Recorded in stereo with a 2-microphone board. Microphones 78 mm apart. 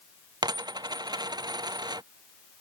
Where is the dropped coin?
60° right (ahead or behind).